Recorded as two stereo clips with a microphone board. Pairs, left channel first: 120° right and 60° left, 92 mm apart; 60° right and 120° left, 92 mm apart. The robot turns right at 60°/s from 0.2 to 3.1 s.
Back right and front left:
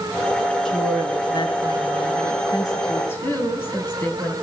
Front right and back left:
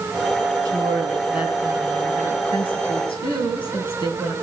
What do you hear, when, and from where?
0.7 s a woman speaking: 155° left, 3.5 m; by 4.3 s 55° right, 3.5 m